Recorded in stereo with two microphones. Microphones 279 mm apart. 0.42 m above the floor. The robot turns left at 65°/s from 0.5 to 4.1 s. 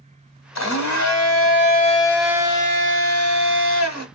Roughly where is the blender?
Left.